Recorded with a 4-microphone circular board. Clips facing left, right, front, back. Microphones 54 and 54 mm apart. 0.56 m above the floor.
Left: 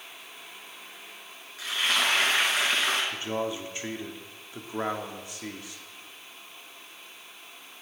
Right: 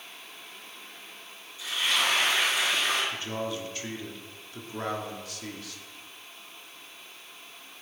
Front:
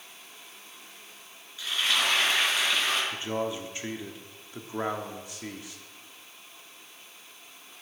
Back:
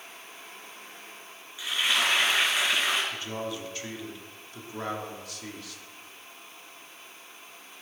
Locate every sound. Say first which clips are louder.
1.6 s frying: left 1 dB, back 1 dB; 105° left, 4 m
3.1 s a man speaking: left 2 dB, front 3 dB; 45° left, 1.0 m